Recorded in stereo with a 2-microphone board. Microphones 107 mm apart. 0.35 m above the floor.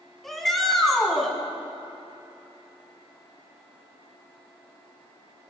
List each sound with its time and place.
0.2 s a shout: centre (ahead or behind), 3 m